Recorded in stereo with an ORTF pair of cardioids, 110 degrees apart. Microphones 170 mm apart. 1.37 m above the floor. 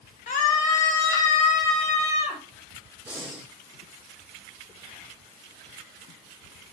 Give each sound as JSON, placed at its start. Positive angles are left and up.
{"t": 0.3, "sound": "a scream", "azimuth_deg": 45, "distance_m": 0.8}
{"t": 3.0, "sound": "breathing", "azimuth_deg": -10, "distance_m": 1.6}